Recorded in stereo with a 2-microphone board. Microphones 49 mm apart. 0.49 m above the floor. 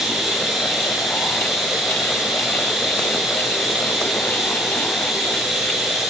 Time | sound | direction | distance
0.0 | running water | centre (ahead or behind) | 7 m